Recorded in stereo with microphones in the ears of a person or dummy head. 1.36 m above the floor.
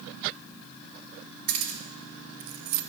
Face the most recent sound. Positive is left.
turn(degrees=-65)  # may be behind; listen again after turning